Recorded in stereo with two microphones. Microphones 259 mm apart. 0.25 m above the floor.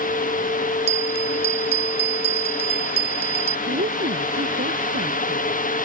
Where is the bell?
20° right (ahead or behind).